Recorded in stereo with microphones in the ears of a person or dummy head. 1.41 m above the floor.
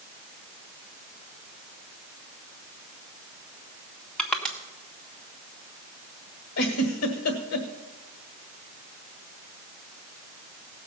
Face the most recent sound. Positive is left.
turn(degrees=85)